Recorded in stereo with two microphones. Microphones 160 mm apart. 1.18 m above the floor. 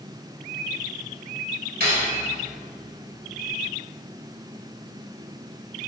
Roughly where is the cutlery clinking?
Right.